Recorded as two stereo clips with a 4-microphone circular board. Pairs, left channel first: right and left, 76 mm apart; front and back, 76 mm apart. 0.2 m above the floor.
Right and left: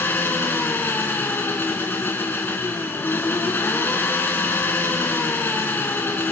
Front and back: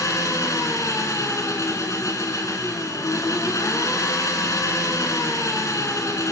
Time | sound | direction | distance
0.0 | an engine running | 30° right | 2.5 m